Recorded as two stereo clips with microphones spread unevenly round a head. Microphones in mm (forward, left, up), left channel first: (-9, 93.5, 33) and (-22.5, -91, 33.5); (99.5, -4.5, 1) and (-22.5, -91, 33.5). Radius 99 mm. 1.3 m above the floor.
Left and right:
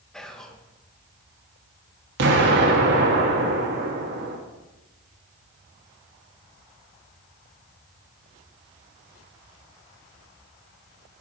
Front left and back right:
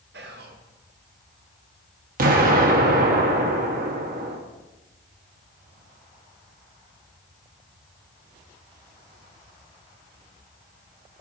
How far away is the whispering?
About 1.3 m.